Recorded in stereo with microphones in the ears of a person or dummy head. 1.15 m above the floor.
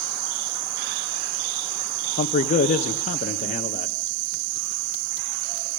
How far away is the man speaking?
About 1.2 m.